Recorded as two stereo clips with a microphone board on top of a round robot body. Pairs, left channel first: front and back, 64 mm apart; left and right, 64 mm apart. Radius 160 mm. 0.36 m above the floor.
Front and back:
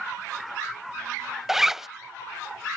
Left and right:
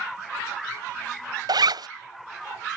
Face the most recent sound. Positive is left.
turn(degrees=-95)